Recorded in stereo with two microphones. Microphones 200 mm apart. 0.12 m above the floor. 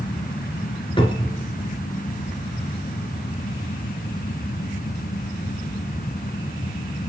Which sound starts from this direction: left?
A cupboard door, at 1.0 s.